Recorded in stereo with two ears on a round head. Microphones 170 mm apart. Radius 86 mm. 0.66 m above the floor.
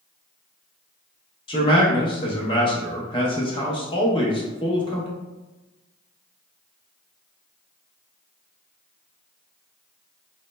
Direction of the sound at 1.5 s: 25° left (ahead or behind).